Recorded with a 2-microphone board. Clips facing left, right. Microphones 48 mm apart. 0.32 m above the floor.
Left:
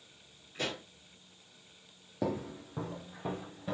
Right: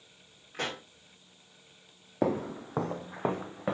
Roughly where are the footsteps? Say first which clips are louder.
Right 6 dB; right.